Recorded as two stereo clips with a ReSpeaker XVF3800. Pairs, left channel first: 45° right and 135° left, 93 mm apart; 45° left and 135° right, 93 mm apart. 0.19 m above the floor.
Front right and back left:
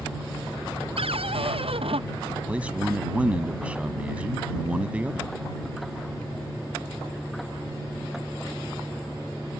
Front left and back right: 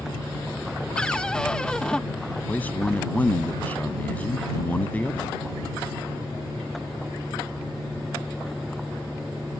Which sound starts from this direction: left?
A man speaking, at 2.5 s.